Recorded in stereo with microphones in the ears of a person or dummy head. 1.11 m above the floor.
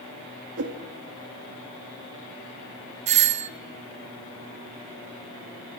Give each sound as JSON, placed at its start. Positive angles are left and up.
{"t": 0.6, "sound": "a whoosh", "side_deg": -65, "distance_m": 2.5}
{"t": 3.1, "sound": "a doorbell", "side_deg": -35, "distance_m": 0.6}